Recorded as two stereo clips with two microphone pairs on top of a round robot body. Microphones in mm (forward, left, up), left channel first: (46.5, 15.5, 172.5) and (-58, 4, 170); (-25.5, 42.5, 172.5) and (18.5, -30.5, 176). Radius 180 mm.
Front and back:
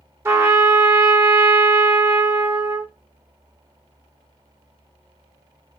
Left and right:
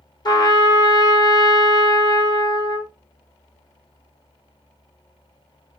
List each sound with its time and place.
0.2 s a trumpet: 125° left, 1.0 m